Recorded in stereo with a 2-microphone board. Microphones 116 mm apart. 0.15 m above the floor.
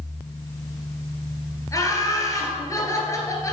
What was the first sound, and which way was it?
Laughter, 25° left (ahead or behind).